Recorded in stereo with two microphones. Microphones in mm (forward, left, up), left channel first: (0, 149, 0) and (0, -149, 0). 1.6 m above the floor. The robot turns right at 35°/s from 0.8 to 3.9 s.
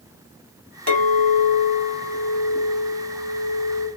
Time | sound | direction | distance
0.9 | a clink | 105° left | 1.9 m